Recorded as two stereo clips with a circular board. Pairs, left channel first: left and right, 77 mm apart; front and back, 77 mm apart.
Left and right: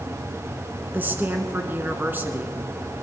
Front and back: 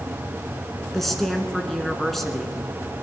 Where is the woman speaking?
80° right, 1.3 m.